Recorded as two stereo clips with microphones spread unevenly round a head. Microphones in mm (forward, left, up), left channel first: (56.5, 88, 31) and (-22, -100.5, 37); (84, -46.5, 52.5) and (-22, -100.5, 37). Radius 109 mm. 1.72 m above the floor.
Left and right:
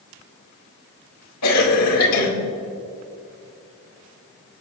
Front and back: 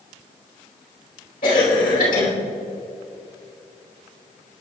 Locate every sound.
1.4 s a cough: 65° left, 2.5 m